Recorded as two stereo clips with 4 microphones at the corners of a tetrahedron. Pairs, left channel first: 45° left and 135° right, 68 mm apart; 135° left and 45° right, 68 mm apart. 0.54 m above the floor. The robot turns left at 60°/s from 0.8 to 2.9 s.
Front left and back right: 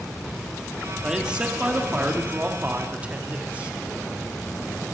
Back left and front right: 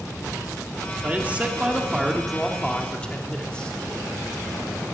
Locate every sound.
1.0 s a man speaking: 60° right, 1.3 m; by 3.7 s 170° right, 1.3 m